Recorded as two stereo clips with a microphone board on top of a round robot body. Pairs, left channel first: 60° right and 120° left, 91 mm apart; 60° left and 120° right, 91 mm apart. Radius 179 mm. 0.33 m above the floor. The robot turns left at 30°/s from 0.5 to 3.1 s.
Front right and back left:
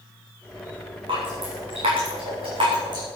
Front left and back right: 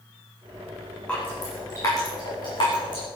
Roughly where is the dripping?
Behind left.